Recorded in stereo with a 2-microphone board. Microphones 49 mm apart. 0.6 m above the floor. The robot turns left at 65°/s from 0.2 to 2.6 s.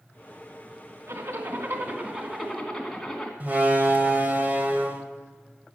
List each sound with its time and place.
1.1 s a zipper: 90° right, 2.5 m; by 3.3 s 170° left, 2.5 m
3.4 s a door slam: 40° right (ahead or behind), 2 m